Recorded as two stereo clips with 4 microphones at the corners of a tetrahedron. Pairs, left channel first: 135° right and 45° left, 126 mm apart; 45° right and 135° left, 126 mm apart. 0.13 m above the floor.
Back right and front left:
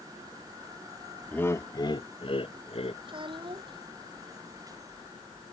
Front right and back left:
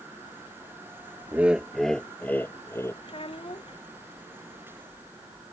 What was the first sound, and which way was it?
Laughter, 175° left.